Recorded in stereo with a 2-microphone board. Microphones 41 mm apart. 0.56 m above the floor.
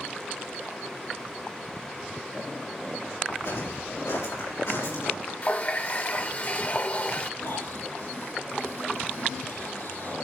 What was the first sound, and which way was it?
Footsteps, 75° left (ahead or behind).